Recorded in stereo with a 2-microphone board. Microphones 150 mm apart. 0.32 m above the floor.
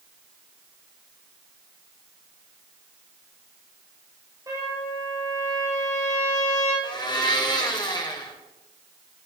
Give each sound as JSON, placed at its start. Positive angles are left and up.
{"t": 4.5, "sound": "a trumpet", "side_deg": -20, "distance_m": 3.0}
{"t": 6.8, "sound": "a blender", "side_deg": 30, "distance_m": 1.2}